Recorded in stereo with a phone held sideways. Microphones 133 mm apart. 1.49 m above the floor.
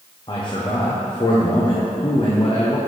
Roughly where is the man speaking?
Left.